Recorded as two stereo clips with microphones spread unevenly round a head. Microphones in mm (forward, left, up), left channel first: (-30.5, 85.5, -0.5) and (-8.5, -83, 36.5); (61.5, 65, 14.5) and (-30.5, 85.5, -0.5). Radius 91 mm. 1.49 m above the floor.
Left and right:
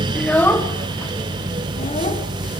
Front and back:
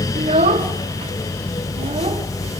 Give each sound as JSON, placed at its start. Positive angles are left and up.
{"t": 0.1, "sound": "a child speaking", "azimuth_deg": -170, "distance_m": 1.4}